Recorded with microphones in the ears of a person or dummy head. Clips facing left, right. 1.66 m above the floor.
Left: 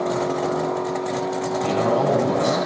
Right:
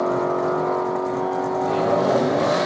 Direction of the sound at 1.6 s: 85° left.